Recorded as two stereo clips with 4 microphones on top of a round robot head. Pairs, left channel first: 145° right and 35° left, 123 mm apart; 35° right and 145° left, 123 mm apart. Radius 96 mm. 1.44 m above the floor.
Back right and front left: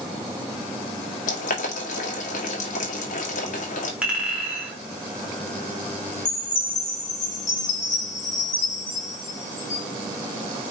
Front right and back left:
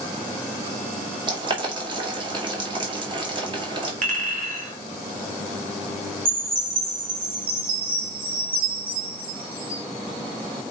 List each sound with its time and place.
1.3 s boiling: 165° right, 2 m
4.0 s a clink: 120° left, 2.5 m
6.2 s a chime: 170° right, 4 m